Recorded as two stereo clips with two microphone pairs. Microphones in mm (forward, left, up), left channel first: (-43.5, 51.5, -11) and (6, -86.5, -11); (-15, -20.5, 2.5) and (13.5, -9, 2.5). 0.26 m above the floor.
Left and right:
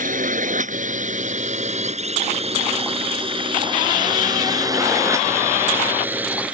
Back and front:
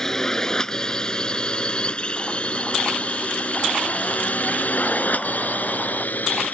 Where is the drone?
85° right; by 6.5 s 150° right.